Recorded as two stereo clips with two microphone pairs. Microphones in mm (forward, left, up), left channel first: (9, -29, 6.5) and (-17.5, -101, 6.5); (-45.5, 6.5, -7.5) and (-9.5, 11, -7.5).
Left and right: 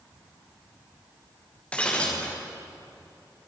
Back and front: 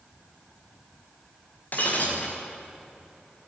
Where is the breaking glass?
145° left, 5.5 m.